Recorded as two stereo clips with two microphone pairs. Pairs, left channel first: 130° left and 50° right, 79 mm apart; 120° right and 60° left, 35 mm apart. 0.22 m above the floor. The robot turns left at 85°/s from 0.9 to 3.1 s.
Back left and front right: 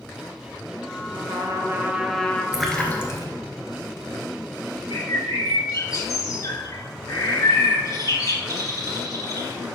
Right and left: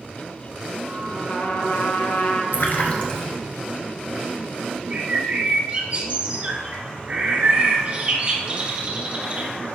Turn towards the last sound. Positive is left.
turn(degrees=100)